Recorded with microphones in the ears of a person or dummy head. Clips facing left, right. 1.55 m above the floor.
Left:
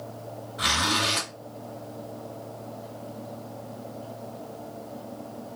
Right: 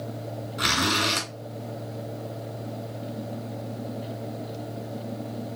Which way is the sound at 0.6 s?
35° right (ahead or behind).